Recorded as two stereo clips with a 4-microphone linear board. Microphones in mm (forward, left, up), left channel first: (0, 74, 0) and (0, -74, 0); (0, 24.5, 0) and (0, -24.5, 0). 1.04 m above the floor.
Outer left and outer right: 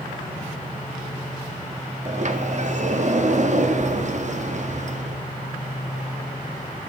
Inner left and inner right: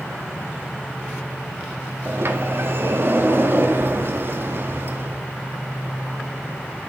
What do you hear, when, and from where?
2.0 s a sliding door: 55° right (ahead or behind), 0.7 m